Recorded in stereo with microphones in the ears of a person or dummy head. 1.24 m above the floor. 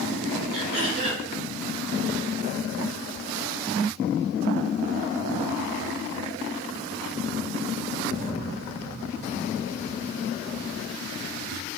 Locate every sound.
0.5 s throat clearing: 45° right (ahead or behind), 1.9 m